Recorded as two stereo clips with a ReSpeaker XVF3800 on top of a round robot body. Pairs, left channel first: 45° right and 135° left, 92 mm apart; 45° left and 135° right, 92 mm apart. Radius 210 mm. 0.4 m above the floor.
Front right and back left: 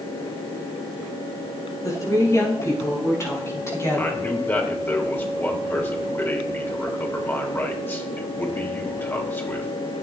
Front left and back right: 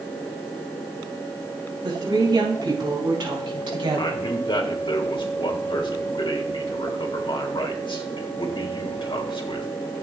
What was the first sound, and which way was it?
A woman speaking, 95° right.